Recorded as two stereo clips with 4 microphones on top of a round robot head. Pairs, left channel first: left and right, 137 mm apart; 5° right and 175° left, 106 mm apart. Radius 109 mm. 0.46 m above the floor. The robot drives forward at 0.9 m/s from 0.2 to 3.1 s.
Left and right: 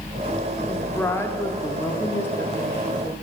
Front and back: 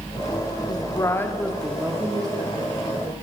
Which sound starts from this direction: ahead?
A woman speaking, at 0.7 s.